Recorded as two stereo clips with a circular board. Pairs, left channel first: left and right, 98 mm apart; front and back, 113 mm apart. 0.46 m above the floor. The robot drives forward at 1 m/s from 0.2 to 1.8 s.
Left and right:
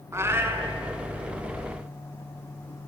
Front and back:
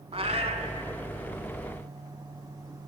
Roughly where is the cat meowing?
Behind right.